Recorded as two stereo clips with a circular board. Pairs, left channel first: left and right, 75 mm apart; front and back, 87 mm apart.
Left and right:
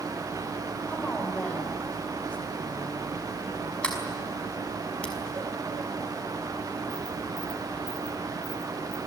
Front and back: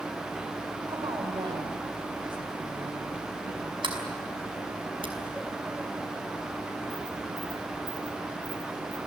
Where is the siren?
No siren in this recording.